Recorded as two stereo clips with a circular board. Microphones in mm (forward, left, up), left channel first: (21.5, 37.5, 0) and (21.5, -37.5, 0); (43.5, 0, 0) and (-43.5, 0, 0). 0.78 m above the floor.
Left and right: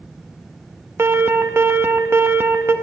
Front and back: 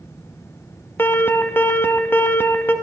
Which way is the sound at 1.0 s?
50° right.